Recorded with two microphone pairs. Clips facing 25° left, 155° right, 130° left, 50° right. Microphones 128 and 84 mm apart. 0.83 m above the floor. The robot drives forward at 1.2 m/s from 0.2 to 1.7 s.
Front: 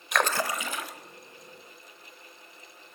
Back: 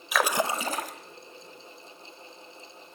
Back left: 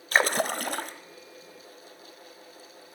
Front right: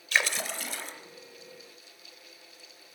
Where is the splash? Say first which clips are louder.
Back 2 dB, back left 6 dB; 115° left, 0.7 m; by 0.9 s 160° left, 1.2 m.